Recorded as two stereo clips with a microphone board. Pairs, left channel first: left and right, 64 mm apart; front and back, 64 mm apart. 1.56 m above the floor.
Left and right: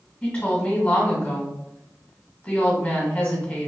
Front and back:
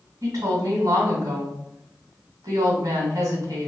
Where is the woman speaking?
165° left, 1.8 m.